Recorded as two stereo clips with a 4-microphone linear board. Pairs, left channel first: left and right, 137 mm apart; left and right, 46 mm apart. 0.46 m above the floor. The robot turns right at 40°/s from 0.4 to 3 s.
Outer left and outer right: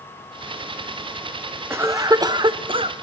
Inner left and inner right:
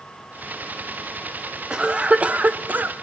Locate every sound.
1.7 s a cough: 155° right, 1.0 m; by 2.9 s 105° right, 1.0 m